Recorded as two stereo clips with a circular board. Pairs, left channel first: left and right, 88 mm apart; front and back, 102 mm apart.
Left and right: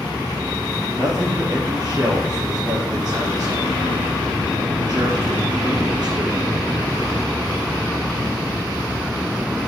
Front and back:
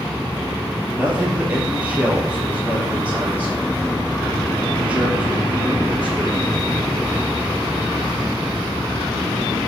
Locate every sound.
0.9 s a man speaking: 105° right, 3 m